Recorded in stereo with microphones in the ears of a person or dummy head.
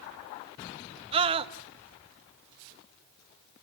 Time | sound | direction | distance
1.1 | a scream | 30° right (ahead or behind) | 1.8 m